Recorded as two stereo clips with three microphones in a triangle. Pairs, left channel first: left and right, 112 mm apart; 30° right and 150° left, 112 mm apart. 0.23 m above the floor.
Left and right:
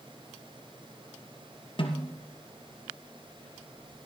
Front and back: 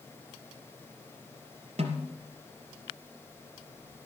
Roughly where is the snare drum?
Behind left.